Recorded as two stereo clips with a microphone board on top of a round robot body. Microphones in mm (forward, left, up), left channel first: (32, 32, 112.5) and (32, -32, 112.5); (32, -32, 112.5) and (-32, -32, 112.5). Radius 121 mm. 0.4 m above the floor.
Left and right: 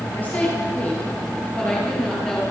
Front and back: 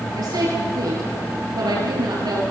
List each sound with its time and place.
0.1 s a woman speaking: 155° left, 9 m; by 2.4 s 170° left, 8.5 m